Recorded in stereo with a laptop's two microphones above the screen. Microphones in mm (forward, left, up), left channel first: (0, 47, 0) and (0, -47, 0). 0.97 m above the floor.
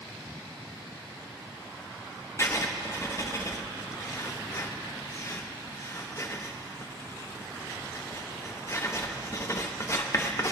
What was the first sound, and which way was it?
Writing, 35° left (ahead or behind).